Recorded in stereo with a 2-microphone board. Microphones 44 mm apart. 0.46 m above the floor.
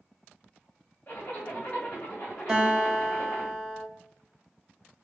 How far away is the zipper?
About 1.7 m.